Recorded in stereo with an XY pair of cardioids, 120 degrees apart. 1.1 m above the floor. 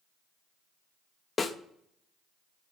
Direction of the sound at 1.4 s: 30° left.